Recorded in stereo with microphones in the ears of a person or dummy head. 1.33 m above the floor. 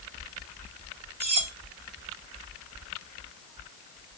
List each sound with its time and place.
1.2 s cutlery clinking: 60° right (ahead or behind), 2 m